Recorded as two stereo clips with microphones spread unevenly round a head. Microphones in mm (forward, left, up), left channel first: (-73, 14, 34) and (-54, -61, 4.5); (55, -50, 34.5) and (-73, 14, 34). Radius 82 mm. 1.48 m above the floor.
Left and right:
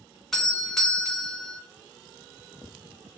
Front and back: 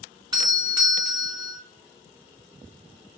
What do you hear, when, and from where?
0.3 s a doorbell: 155° right, 1.0 m